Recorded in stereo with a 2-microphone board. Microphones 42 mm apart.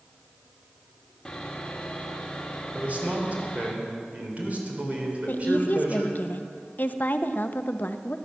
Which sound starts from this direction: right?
A man speaking, at 2.7 s.